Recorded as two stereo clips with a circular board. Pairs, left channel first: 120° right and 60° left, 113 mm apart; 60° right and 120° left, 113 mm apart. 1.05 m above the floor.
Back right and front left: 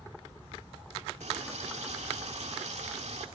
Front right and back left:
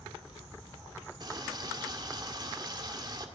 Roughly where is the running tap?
Left.